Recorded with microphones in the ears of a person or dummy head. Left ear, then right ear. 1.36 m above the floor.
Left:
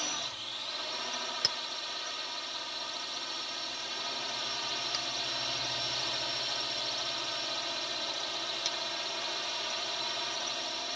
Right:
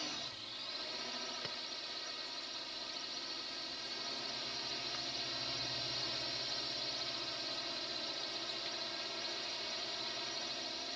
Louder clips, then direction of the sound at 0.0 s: Left 7 dB; 40° left (ahead or behind).